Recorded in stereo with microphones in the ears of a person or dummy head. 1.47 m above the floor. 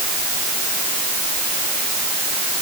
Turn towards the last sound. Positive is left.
No sound to turn to.